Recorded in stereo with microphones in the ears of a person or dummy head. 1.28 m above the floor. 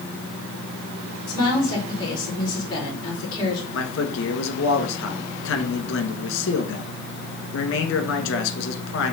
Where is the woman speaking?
25° left (ahead or behind), 3 m.